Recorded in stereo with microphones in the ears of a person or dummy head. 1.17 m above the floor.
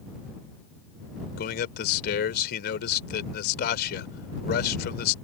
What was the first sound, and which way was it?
A man speaking, 55° left (ahead or behind).